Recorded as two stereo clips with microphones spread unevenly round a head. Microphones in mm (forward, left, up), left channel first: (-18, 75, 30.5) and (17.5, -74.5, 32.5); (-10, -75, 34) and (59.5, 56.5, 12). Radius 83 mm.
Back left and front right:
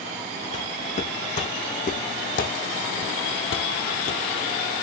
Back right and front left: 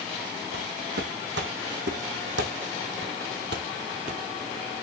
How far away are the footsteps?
About 5 m.